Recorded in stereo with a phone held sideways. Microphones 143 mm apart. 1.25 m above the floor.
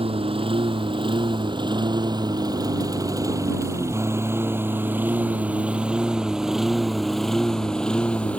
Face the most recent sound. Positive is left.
turn(degrees=10)  # may be behind; listen again after turning